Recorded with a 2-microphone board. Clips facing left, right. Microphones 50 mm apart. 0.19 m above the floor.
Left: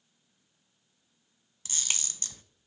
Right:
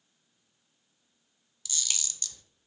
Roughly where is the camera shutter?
Left.